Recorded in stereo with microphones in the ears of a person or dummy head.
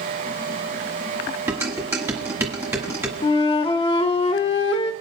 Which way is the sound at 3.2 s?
30° left (ahead or behind).